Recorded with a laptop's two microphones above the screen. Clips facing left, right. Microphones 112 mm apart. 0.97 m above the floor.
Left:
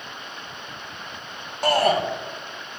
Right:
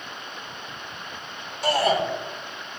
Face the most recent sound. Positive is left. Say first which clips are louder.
# left 2 dB
turn(degrees=50)  # may be behind; listen again after turning